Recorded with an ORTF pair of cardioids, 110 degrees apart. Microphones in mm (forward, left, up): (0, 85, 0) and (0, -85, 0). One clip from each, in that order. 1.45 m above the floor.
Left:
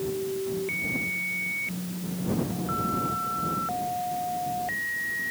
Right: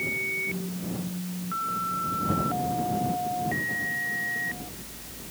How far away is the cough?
I don't hear a cough.